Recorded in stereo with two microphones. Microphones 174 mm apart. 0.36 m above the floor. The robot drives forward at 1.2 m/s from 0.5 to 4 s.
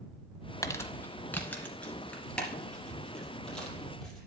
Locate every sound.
0.6 s crumpling: 20° left (ahead or behind), 0.8 m; by 4.2 s 5° left (ahead or behind), 5 m